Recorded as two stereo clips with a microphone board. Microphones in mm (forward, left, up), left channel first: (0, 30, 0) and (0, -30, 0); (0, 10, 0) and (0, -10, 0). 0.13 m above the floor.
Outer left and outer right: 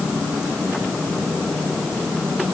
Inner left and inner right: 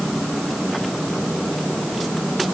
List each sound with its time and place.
Only background noise.